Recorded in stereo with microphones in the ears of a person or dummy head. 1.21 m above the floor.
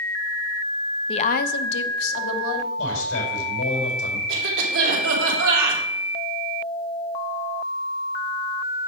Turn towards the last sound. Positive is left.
turn(degrees=-75)  # may be behind; listen again after turning